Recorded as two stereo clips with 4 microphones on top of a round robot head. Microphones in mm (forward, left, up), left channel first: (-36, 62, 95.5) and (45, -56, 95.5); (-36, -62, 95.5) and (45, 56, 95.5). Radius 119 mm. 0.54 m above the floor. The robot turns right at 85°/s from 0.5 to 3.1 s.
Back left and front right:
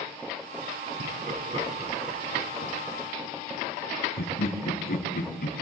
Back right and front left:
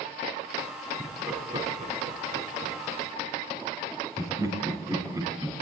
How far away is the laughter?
About 5.5 m.